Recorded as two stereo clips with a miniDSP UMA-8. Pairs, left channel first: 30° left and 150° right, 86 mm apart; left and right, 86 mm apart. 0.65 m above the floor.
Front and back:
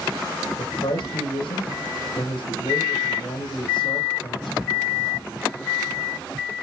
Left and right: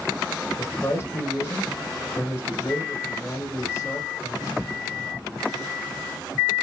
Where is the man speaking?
30° left, 2.5 m.